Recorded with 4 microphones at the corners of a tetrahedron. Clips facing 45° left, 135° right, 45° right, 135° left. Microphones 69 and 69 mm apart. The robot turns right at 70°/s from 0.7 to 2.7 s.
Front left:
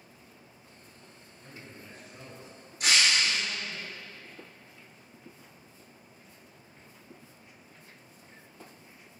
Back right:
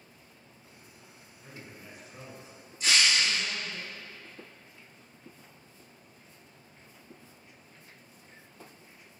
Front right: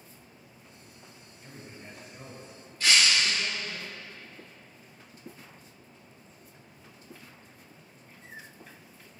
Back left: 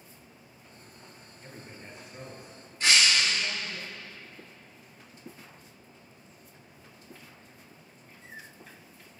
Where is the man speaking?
130° left, 1.8 m; by 3.8 s 140° right, 1.8 m.